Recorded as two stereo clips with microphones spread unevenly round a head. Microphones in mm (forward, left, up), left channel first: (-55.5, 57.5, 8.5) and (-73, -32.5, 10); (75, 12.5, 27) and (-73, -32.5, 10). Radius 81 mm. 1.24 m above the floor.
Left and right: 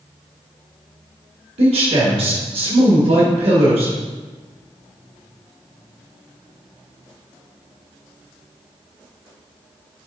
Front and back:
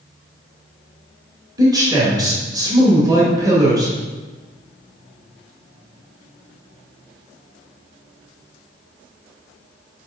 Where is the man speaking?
95° right, 1.9 m.